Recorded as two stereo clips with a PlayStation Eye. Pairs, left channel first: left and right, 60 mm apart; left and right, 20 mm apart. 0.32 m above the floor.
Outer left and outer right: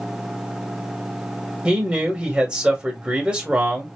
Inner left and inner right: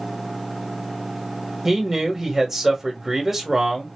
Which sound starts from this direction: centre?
A man speaking, at 1.6 s.